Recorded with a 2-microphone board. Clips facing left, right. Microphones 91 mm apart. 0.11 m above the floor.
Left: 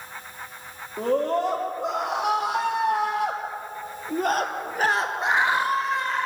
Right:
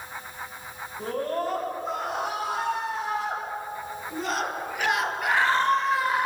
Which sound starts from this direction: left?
A scream, at 1.0 s.